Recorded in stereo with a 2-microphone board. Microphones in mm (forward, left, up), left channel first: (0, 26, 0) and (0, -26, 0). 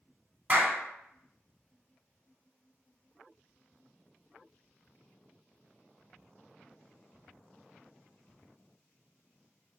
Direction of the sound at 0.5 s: 30° right (ahead or behind).